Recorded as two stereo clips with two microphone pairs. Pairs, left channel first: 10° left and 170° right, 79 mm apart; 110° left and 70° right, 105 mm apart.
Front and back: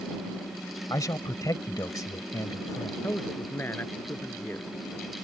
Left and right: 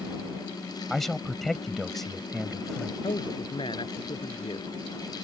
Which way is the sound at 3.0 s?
75° left.